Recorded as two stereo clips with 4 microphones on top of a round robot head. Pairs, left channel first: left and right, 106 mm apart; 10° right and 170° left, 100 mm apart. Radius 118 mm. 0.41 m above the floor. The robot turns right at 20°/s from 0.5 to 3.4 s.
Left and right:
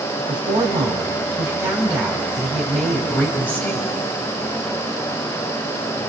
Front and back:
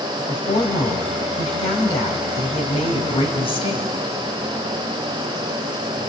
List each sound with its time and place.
0.2 s a woman speaking: 40° right, 3 m; by 3.9 s 15° left, 3 m